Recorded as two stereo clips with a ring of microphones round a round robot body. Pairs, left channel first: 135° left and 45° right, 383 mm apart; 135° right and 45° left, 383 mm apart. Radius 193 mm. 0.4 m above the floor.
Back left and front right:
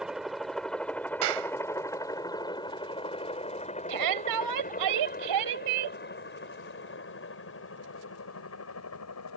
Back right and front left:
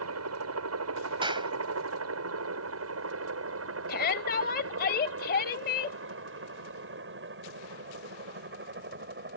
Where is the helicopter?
45° left; by 9.4 s 100° left.